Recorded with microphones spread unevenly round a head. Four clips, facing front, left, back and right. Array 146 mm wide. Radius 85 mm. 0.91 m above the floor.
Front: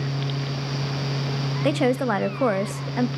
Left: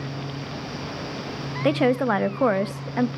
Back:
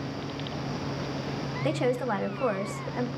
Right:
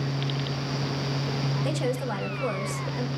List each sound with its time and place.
1.6 s a woman speaking: 45° left, 0.7 m